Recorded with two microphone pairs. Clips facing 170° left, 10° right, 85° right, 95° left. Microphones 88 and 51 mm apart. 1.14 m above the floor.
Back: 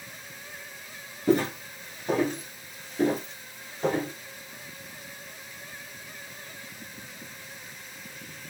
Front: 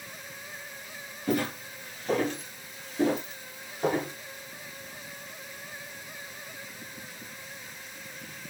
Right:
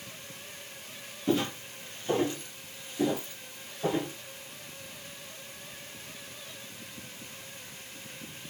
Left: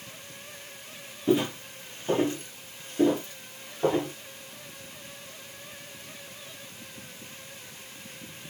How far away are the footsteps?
About 1.2 m.